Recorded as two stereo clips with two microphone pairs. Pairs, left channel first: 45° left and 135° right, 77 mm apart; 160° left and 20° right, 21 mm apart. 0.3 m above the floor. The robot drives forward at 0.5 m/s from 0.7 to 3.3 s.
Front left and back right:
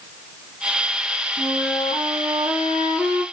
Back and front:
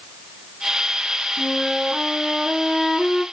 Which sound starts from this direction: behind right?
A flute, at 1.4 s.